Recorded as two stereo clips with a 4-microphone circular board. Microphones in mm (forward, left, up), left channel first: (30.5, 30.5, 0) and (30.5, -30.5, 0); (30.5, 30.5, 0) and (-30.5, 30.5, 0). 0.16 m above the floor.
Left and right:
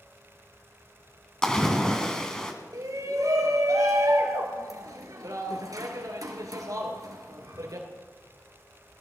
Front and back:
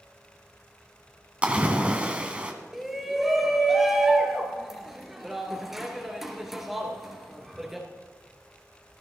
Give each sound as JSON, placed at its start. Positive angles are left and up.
{"t": 1.4, "sound": "a splash", "azimuth_deg": 150, "distance_m": 1.6}
{"t": 2.7, "sound": "a shout", "azimuth_deg": -95, "distance_m": 2.5}